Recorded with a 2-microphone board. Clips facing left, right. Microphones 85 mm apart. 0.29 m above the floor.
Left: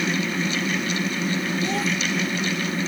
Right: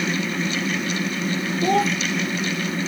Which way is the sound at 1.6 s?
50° right (ahead or behind).